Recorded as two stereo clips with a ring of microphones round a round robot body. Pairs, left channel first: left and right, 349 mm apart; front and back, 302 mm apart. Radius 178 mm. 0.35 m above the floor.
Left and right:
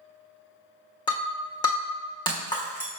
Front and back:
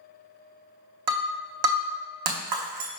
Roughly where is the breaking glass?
Behind.